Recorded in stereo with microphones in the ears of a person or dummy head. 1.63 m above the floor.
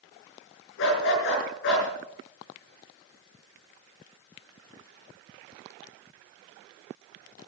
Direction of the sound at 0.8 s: 65° left (ahead or behind).